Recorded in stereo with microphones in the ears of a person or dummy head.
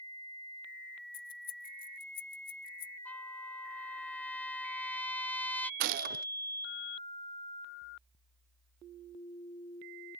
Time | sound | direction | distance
1.1 | keys jangling | 25° left (ahead or behind) | ?
3.0 | a trumpet | 10° left (ahead or behind) | ?
5.8 | a gunshot | 50° right (ahead or behind) | ?